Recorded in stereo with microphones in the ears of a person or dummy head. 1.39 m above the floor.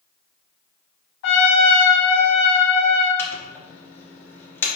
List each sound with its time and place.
1.2 s a trumpet: 70° left (ahead or behind), 1.3 m
3.2 s a microwave: 10° left (ahead or behind), 1.0 m